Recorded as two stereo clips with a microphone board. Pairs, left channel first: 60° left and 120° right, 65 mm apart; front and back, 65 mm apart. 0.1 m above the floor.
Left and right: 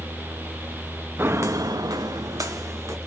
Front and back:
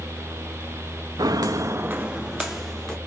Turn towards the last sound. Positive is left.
turn(degrees=-85)